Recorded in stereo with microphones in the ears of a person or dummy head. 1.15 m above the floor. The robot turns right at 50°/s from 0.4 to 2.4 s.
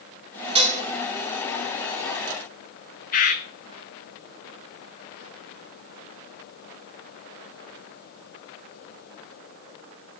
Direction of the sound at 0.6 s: 30° right (ahead or behind).